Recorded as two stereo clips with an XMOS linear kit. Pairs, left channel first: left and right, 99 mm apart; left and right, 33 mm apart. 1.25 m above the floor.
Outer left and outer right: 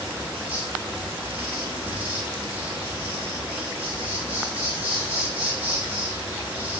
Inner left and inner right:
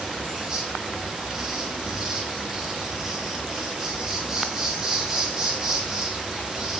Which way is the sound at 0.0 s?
20° right (ahead or behind).